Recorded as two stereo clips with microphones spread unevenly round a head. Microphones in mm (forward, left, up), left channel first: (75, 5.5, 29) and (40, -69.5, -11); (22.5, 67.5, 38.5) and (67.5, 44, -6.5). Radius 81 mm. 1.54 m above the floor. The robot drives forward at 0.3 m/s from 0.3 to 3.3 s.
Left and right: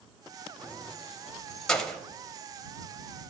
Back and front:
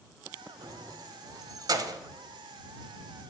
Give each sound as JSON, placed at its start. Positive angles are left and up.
{"t": 0.6, "sound": "keys jangling", "azimuth_deg": -5, "distance_m": 1.2}